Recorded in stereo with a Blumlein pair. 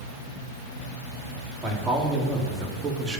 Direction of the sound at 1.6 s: 5° right.